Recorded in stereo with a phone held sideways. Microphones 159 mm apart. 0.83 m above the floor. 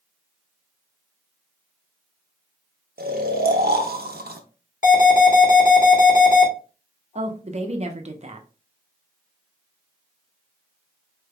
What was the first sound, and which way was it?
Snoring, 75° right (ahead or behind).